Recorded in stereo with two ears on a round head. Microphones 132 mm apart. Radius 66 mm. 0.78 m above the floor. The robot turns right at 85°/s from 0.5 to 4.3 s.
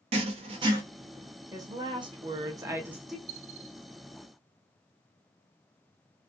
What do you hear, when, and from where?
0.1 s writing: 40° right (ahead or behind), 0.6 m; by 0.8 s 20° right (ahead or behind), 0.6 m
1.5 s a woman speaking: 140° right, 0.6 m; by 3.2 s 5° left, 0.6 m
3.3 s a dropped coin: 50° right (ahead or behind), 0.9 m; by 3.8 s 75° right (ahead or behind), 0.9 m